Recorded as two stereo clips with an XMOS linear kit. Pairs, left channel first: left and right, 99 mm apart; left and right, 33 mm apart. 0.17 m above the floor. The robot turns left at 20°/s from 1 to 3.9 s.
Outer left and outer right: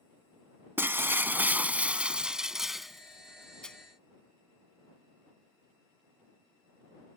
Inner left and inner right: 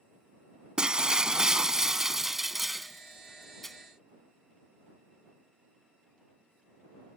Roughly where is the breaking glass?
Behind right.